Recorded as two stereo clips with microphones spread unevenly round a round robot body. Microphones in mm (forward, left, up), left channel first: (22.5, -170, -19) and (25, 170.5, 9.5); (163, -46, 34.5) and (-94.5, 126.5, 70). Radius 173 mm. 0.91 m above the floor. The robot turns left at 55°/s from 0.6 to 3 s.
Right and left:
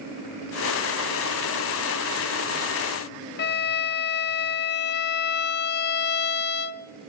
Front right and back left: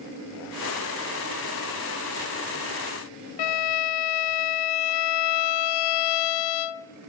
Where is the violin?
30° right, 0.5 m.